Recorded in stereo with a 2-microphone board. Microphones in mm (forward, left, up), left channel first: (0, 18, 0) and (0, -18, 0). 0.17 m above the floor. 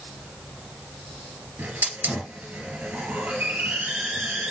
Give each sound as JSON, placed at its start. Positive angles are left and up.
{"t": 1.6, "sound": "a hiss", "side_deg": -65, "distance_m": 2.5}